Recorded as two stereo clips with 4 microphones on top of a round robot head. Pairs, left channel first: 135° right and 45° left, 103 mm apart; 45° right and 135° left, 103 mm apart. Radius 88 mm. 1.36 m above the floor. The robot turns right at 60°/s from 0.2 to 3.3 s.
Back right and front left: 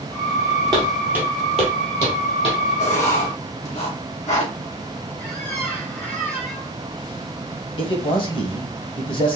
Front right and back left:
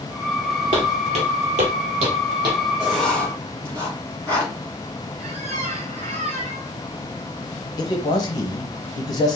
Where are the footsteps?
100° left, 1.7 m; by 2.6 s 170° right, 3 m.